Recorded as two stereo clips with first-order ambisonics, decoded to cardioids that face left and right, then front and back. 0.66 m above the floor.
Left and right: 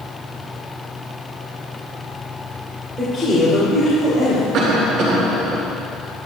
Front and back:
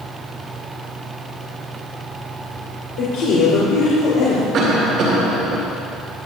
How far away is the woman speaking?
About 3 m.